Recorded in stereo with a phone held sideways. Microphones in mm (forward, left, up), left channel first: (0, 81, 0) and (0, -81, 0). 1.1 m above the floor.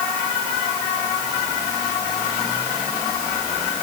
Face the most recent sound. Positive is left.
No sound to turn to.